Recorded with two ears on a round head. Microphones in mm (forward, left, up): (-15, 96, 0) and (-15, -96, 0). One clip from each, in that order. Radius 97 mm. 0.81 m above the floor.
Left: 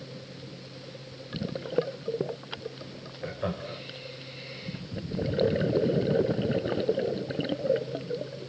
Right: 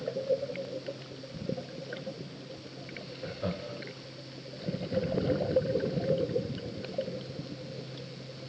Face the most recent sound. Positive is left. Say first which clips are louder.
# left 3 dB
turn(degrees=30)  # may be behind; listen again after turning